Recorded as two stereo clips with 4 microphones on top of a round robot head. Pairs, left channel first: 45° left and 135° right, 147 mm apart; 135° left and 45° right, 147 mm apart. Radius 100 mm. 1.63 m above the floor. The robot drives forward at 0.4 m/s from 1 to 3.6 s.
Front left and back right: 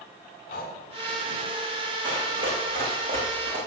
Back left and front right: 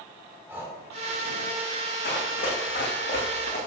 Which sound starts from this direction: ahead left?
Breathing, at 0.5 s.